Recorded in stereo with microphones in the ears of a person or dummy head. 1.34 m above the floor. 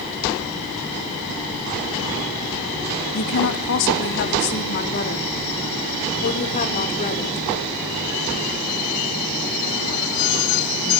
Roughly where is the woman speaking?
Left.